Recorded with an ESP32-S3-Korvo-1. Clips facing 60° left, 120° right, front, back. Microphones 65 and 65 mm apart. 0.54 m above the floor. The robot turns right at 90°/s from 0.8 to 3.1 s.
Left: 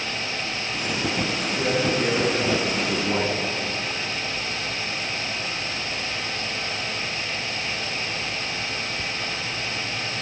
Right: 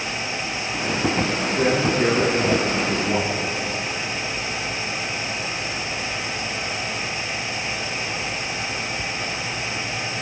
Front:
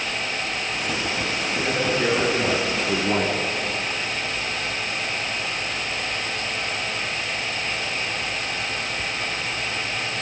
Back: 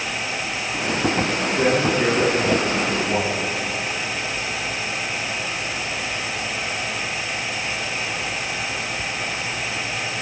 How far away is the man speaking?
About 6 m.